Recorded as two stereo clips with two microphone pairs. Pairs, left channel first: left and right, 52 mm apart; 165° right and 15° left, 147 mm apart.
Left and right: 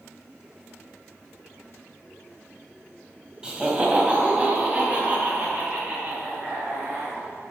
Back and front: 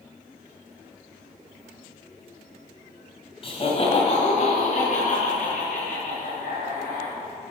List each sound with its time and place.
3.4 s laughter: 160° right, 1.9 m; by 7.2 s 145° right, 4.5 m